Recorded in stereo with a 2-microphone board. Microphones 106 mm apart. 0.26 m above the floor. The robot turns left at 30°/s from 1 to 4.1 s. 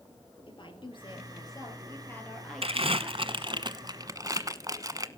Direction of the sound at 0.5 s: 55° left.